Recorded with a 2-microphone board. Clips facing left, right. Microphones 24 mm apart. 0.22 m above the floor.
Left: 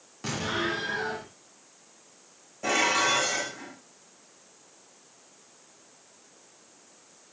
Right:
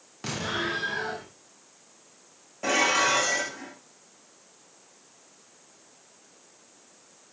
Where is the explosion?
15° right (ahead or behind), 8 m.